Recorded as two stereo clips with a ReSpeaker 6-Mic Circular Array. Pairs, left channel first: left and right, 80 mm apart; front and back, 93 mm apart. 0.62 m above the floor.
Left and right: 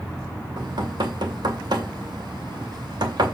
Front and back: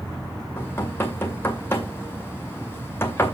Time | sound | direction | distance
0.6 | knocking | 65° right | 2 m